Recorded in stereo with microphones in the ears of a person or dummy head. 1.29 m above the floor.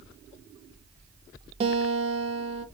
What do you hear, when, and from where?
1.6 s a guitar: 35° right (ahead or behind), 1.0 m